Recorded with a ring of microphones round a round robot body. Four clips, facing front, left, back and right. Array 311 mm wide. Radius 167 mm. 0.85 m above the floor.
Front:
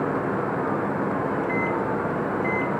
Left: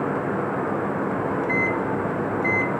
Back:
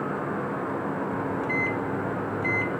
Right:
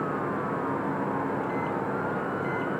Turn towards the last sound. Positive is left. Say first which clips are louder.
# left 5 dB, front 3 dB
turn(degrees=130)